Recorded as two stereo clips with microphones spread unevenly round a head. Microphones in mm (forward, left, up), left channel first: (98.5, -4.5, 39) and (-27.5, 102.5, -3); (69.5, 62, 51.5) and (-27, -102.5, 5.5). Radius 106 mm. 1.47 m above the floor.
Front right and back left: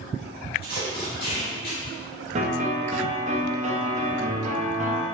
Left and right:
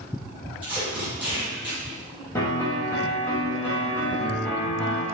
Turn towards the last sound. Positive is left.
turn(degrees=105)